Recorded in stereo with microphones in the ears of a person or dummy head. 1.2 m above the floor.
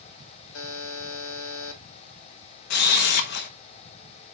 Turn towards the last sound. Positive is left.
turn(degrees=55)  # may be behind; listen again after turning